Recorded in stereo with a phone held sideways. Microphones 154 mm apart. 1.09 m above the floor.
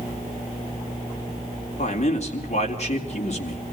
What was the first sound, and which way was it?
A man speaking, 45° left (ahead or behind).